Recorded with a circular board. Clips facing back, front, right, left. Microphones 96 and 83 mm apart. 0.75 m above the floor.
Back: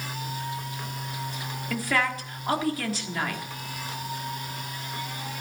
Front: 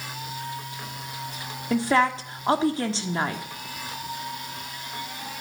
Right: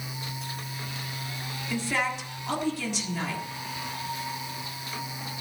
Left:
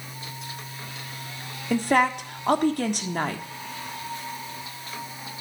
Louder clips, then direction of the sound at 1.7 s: Front 6 dB, left 8 dB; 60° left.